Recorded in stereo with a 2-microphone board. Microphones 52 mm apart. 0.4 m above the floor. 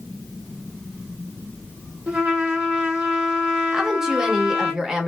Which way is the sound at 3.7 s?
10° right (ahead or behind).